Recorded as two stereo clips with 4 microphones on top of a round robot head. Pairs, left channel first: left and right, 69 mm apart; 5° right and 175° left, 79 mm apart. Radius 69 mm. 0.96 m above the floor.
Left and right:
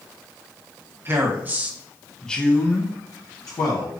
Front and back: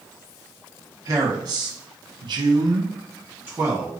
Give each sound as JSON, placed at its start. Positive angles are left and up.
{"t": 1.1, "sound": "a man speaking", "azimuth_deg": -140, "distance_m": 1.4}